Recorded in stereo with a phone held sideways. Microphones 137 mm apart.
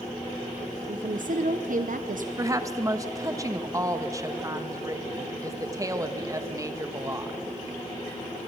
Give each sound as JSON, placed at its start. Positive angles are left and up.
{"t": 0.9, "sound": "a woman speaking", "side_deg": -70, "distance_m": 1.0}
{"t": 2.4, "sound": "a woman speaking", "side_deg": -20, "distance_m": 1.3}